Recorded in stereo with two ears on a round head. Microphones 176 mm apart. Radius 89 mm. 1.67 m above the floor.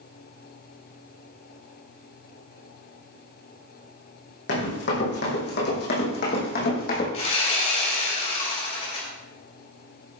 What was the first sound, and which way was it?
Running footsteps, 60° left (ahead or behind).